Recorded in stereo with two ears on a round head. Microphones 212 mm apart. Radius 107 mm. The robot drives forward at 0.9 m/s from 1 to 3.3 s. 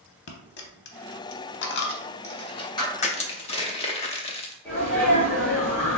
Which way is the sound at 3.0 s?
30° left (ahead or behind).